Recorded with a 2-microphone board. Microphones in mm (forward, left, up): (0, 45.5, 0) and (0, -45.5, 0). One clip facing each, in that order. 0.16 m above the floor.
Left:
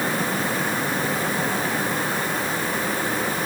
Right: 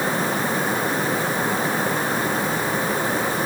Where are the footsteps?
I don't hear footsteps.